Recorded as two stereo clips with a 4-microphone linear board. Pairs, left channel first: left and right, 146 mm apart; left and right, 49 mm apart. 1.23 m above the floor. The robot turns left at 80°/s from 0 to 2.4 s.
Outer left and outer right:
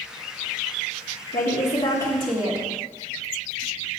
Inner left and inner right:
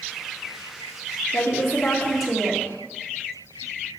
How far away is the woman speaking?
About 1.2 m.